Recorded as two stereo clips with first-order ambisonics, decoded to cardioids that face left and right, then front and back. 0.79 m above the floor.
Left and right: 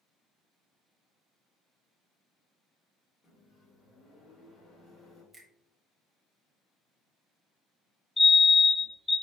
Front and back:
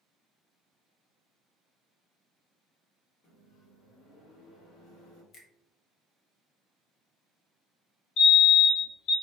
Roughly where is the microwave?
Ahead left.